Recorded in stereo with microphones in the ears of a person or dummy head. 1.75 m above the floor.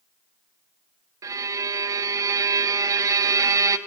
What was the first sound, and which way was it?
A violin, 20° right (ahead or behind).